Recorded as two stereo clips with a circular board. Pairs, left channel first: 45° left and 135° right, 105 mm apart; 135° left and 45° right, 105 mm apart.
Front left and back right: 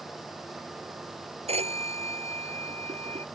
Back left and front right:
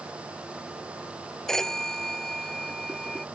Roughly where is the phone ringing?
Behind right.